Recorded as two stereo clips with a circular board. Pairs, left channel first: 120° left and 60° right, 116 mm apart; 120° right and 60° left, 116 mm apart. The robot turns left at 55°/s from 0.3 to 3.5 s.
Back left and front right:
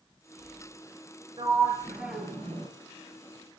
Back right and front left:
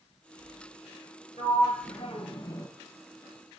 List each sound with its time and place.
1.4 s a sliding door: 110° right, 3 m; by 2.7 s straight behind, 3 m